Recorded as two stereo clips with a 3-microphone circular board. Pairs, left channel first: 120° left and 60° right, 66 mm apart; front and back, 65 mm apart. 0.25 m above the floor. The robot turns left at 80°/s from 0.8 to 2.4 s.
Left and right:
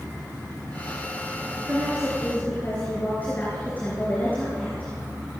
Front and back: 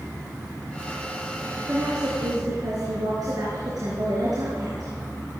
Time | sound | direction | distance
1.7 | a woman speaking | 120° right | 4 m